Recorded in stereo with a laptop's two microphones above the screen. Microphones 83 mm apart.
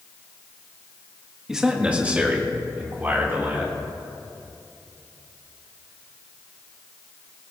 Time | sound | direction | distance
1.5 | a man speaking | 5° right (ahead or behind) | 1.3 m